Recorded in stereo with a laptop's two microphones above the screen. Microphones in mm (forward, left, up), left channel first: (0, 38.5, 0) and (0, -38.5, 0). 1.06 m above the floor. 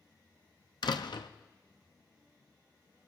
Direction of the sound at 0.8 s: 70° left (ahead or behind).